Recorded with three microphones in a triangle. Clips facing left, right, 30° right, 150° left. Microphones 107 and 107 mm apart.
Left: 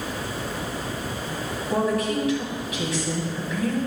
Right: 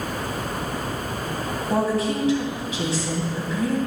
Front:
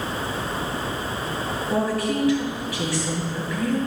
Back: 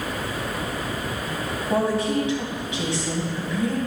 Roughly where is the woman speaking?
Behind right.